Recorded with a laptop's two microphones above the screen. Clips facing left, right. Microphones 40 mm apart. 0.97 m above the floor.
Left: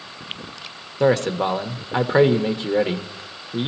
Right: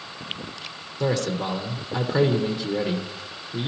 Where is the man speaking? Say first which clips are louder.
Left 6 dB; 40° left (ahead or behind), 1.0 m.